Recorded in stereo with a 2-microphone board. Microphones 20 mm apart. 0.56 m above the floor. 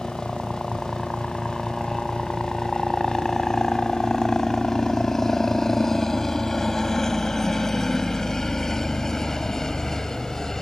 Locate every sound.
0.0 s a helicopter: 20° left (ahead or behind); by 10.6 s 30° left (ahead or behind)